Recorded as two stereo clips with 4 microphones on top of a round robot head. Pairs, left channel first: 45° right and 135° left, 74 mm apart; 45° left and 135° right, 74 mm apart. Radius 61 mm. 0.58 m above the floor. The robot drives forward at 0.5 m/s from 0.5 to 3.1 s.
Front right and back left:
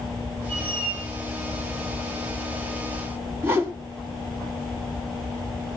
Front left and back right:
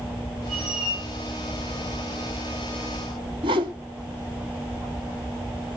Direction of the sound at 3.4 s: 160° right.